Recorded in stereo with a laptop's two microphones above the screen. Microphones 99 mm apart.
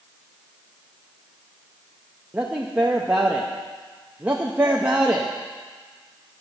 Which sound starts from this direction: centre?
A man speaking, at 2.3 s.